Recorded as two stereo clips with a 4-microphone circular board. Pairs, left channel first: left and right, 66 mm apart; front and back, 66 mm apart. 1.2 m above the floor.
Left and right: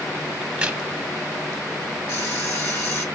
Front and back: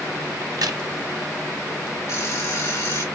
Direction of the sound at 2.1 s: 40° left.